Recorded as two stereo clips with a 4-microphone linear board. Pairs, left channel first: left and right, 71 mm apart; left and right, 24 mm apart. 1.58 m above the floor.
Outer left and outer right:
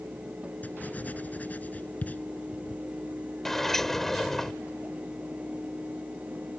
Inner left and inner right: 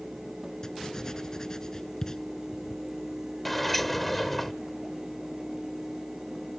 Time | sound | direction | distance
0.6 | writing | 25° left (ahead or behind) | ?
3.5 | a sliding door | 5° left (ahead or behind) | ?